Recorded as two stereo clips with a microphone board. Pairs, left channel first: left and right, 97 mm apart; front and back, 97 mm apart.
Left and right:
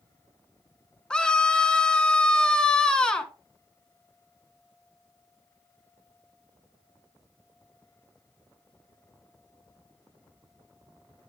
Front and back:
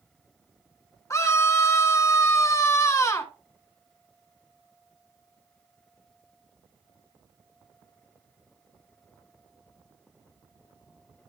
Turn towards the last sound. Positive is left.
turn(degrees=15)